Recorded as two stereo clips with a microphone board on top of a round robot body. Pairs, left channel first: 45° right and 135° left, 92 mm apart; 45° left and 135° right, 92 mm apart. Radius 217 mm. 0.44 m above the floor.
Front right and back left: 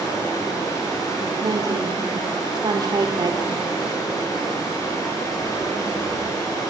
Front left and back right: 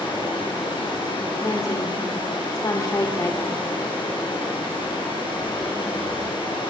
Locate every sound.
0.0 s running water: 10° left, 7.5 m
1.4 s a woman speaking: 95° left, 2.5 m